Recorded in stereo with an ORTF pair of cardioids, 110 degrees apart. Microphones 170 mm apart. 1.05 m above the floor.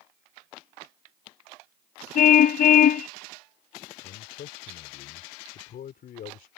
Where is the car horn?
55° left.